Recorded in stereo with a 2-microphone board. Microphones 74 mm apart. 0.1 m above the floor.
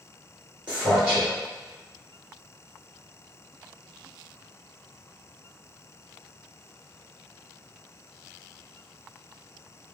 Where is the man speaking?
15° right (ahead or behind), 2.0 m.